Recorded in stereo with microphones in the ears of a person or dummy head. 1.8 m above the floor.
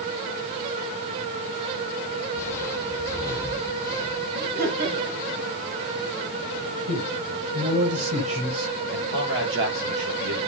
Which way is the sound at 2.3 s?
20° left (ahead or behind).